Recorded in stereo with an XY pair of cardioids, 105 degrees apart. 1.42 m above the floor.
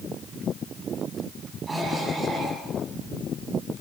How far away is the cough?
About 9 m.